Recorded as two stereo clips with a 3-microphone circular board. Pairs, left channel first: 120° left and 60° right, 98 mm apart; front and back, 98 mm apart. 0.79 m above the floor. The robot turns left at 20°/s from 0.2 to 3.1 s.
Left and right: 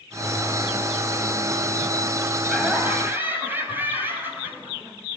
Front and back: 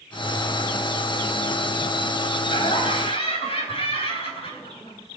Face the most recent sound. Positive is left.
turn(degrees=10)